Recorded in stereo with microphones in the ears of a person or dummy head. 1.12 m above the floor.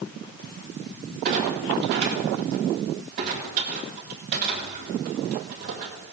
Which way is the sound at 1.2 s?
40° right (ahead or behind).